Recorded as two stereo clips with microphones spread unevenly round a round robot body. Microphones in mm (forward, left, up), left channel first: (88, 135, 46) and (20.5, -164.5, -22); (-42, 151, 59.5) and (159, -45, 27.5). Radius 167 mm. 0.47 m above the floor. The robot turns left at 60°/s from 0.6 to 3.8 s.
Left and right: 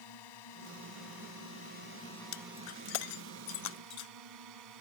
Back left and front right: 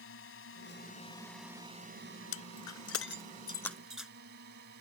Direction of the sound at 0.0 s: 95° left.